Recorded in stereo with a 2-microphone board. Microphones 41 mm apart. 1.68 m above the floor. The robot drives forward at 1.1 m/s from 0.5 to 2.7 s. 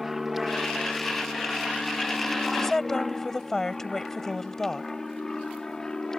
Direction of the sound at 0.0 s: 5° right (ahead or behind).